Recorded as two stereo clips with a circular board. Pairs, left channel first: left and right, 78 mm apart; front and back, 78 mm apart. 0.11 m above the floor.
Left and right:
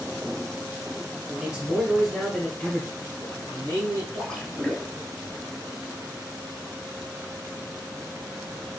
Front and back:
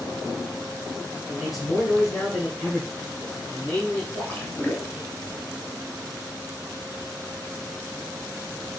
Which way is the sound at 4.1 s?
25° left.